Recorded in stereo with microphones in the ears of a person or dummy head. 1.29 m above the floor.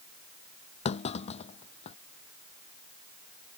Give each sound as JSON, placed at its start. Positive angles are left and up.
{"t": 0.8, "sound": "a clunk", "side_deg": 40}